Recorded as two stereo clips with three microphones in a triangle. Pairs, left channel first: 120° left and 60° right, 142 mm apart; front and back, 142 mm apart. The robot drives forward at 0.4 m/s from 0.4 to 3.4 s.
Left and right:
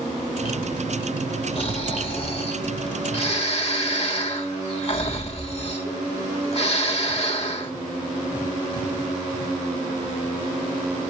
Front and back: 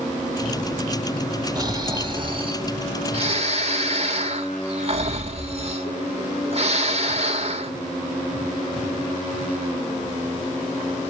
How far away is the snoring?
About 1.4 m.